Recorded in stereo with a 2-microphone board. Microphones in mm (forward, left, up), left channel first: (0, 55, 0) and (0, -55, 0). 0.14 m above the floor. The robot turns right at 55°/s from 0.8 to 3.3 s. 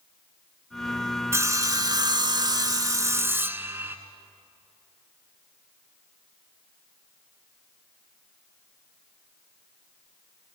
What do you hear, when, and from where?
1.3 s sawing: 140° right, 0.7 m; by 4.0 s 30° right, 0.7 m